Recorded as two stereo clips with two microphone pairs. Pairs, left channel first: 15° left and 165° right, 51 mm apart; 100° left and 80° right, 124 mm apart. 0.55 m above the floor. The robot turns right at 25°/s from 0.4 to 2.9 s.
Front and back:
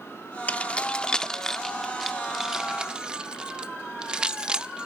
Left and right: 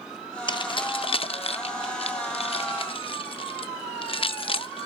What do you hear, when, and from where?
0.5 s keys jangling: 65° left, 0.5 m; by 4.9 s 125° left, 0.5 m